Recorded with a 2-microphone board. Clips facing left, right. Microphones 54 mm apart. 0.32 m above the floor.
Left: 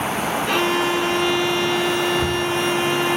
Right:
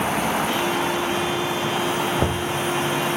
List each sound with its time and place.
0.5 s a violin: 75° left (ahead or behind), 1.5 m
2.2 s knocking: 30° right (ahead or behind), 0.6 m